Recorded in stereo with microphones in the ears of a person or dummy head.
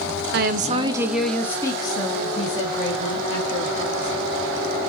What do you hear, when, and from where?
0.3 s a woman speaking: 55° right (ahead or behind), 0.6 m; by 4.8 s 40° left (ahead or behind), 3 m